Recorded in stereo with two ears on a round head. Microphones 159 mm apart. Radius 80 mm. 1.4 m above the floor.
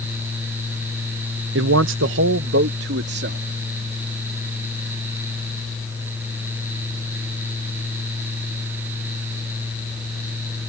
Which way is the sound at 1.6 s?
70° right (ahead or behind).